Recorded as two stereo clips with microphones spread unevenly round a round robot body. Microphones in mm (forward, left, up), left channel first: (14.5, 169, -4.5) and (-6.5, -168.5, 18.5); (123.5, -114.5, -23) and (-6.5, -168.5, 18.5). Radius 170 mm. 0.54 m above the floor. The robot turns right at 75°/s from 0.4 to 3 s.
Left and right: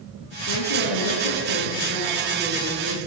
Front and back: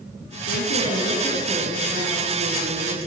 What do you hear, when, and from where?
0.5 s a woman speaking: 35° left, 7.5 m; by 3.0 s 135° right, 7.5 m